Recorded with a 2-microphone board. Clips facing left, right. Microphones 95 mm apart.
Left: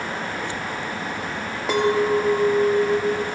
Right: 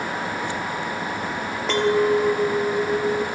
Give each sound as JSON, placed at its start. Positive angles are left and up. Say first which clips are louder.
{"t": 1.7, "sound": "a clink", "louder": "even", "side_deg": 10, "distance_m": 2.5}